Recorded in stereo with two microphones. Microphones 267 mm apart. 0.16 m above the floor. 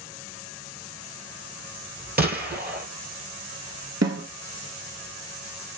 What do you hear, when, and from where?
2.2 s a gunshot: 35° right (ahead or behind), 1.1 m
4.0 s a snare drum: 70° right (ahead or behind), 0.9 m